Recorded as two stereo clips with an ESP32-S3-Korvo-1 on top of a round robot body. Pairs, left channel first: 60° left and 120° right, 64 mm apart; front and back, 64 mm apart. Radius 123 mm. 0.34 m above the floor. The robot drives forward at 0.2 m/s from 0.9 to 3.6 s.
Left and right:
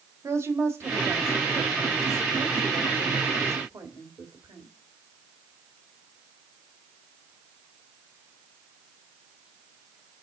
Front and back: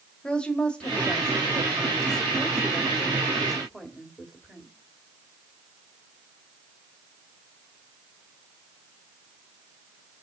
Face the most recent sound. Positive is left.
turn(degrees=-95)